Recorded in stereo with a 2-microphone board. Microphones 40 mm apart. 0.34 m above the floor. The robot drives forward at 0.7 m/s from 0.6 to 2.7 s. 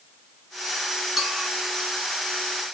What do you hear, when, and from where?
1.2 s a clink: centre (ahead or behind), 2.5 m